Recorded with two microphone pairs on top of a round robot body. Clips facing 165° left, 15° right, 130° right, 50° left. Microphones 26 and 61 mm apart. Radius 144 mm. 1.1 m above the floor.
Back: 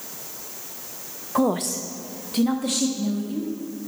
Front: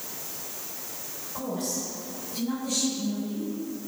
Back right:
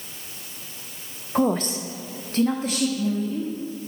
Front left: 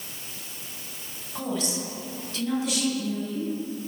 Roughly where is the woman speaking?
Behind.